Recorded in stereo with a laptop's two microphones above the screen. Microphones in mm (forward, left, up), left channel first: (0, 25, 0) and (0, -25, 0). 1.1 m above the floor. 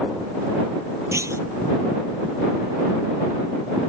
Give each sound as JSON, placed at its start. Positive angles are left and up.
{"t": 1.1, "sound": "a clunk", "side_deg": -75}